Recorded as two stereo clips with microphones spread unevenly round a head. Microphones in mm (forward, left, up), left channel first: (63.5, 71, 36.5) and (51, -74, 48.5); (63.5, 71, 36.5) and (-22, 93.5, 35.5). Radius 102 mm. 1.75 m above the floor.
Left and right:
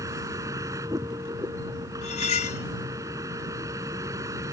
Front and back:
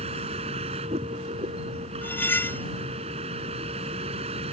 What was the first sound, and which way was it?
A vehicle, 170° right.